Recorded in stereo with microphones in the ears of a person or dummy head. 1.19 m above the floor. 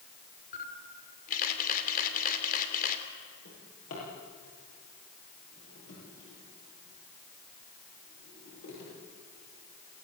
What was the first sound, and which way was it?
A camera shutter, 45° left (ahead or behind).